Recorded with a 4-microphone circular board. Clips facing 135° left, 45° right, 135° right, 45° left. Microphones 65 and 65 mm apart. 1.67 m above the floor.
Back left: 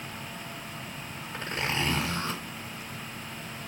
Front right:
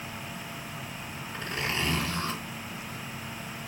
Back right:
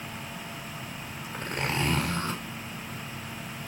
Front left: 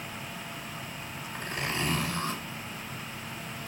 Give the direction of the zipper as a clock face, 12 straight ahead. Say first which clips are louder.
Back left 1 dB, back right 3 dB; 5 o'clock.